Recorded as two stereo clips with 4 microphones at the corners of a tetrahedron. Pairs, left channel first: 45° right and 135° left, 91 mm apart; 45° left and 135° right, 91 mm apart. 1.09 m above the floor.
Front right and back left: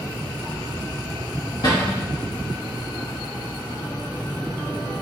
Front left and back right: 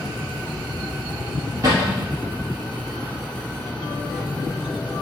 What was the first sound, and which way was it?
A cupboard door, 85° right.